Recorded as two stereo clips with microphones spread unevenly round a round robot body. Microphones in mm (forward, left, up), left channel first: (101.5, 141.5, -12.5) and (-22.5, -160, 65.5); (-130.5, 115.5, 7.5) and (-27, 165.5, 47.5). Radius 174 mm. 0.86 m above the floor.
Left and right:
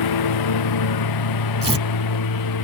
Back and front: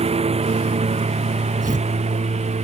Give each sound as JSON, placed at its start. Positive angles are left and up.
{"t": 0.0, "sound": "a lawn mower", "azimuth_deg": 50}
{"t": 1.6, "sound": "tearing paper", "azimuth_deg": -40}